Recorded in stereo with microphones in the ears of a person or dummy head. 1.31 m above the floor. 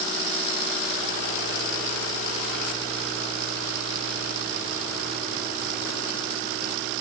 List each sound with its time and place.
Only background noise.